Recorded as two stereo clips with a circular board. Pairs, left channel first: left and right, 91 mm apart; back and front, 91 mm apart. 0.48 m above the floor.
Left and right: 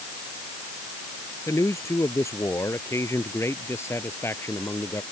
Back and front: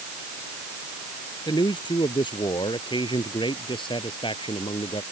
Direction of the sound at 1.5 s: 150° left.